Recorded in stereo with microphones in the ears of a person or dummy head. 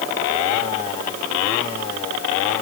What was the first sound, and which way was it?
Only background noise.